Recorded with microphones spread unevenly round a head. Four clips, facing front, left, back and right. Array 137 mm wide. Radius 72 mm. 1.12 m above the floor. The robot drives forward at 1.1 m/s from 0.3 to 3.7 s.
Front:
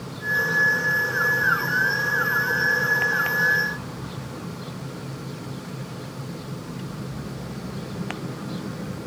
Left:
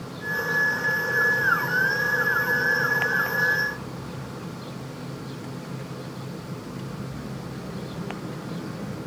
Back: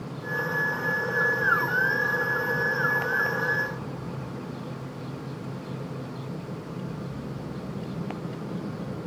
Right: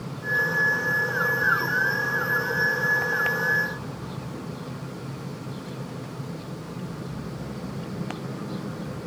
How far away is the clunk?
No clunk in this recording.